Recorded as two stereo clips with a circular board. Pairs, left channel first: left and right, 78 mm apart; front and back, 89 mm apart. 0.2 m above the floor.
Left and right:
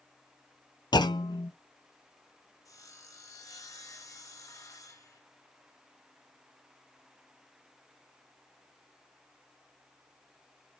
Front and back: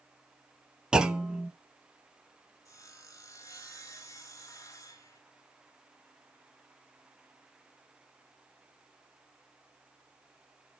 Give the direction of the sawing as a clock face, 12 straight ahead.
10 o'clock.